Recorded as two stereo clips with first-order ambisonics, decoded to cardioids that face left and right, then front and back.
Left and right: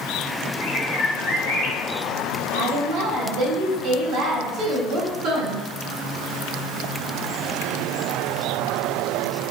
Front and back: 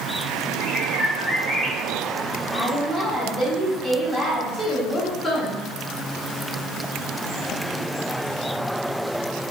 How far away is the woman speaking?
About 1.0 m.